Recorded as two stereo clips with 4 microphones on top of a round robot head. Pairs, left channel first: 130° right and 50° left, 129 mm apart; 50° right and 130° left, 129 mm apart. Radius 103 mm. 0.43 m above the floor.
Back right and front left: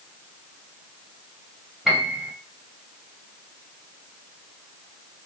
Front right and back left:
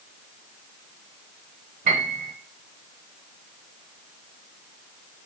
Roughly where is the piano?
Behind left.